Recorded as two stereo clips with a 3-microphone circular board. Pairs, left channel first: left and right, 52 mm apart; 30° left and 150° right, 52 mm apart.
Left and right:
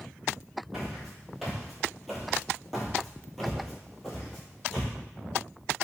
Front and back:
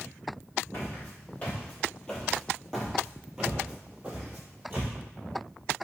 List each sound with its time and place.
0.7 s footsteps: 5° right, 1.8 m; by 4.9 s 170° left, 1.9 m